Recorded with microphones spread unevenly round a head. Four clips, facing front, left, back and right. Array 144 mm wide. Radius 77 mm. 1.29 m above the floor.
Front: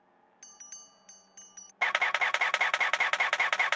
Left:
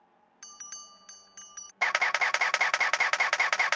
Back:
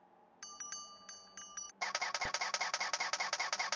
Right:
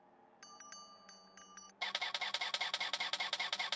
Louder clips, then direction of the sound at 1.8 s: Left 15 dB, front 10 dB; 50° left.